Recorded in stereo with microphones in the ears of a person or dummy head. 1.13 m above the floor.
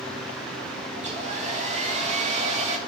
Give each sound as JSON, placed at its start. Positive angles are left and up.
{"t": 1.0, "sound": "a hair dryer", "side_deg": -40, "distance_m": 1.0}